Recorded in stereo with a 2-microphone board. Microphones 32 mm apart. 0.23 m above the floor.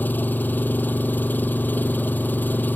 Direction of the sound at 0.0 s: 70° left (ahead or behind).